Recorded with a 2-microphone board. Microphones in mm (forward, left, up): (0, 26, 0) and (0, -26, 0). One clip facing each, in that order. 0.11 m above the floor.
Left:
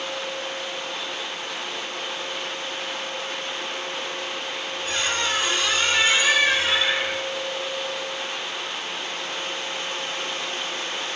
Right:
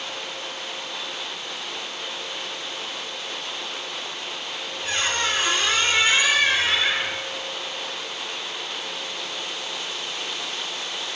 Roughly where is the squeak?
Right.